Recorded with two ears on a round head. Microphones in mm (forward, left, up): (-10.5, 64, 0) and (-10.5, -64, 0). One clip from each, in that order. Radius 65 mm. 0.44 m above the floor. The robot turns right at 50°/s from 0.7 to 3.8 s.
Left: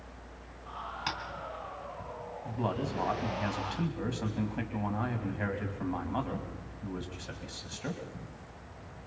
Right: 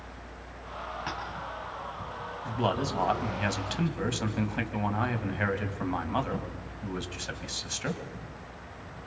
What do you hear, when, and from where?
1.1 s tapping: 80° left, 3 m
2.5 s a man speaking: 115° right, 3 m; by 8.0 s 45° right, 3 m